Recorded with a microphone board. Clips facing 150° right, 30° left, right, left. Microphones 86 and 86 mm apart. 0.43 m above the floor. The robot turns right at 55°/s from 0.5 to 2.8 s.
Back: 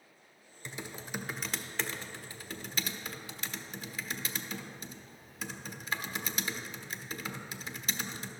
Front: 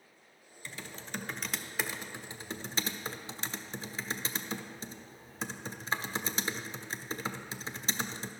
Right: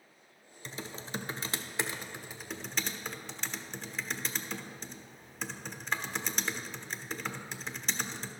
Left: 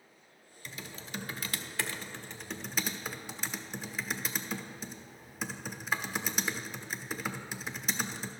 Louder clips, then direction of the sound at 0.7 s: Back 2 dB, right 3 dB; 105° right.